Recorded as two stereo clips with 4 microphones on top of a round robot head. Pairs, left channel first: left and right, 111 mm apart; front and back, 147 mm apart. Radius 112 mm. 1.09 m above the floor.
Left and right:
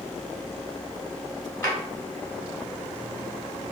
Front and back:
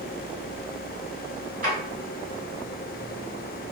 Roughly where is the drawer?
Behind.